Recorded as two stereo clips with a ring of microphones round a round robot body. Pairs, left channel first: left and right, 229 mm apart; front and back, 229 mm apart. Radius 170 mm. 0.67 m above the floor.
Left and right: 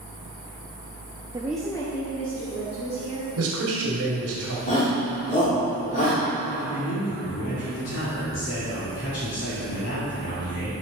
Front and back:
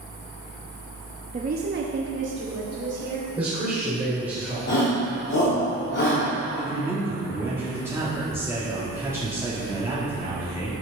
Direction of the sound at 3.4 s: 115° right.